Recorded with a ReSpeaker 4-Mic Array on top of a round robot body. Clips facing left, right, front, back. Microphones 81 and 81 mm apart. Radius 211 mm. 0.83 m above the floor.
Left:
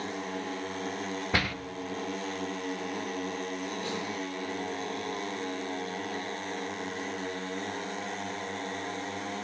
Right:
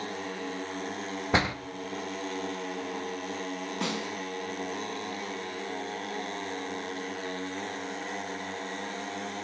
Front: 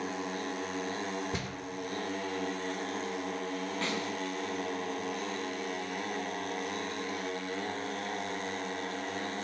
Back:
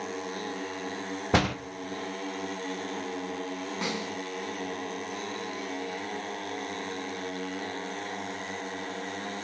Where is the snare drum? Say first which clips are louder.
Right 2 dB, back 2 dB; 105° right, 5 m.